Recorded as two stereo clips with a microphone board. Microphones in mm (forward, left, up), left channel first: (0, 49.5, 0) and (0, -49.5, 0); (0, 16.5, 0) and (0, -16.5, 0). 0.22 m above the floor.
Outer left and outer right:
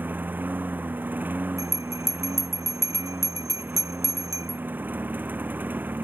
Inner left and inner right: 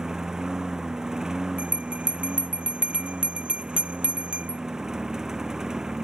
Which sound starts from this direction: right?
A bell, at 1.6 s.